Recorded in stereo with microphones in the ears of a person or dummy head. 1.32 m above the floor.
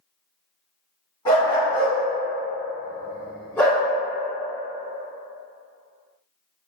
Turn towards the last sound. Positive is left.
turn(degrees=10)  # may be behind; listen again after turning